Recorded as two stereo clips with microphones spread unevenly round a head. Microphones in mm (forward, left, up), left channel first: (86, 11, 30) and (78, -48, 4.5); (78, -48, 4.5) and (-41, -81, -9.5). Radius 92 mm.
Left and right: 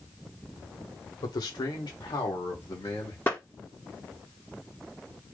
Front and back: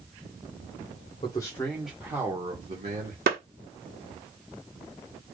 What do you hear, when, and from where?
1.2 s a man speaking: 85° left, 1.3 m; by 3.2 s 145° left, 1.8 m
3.3 s a clap: 160° left, 1.4 m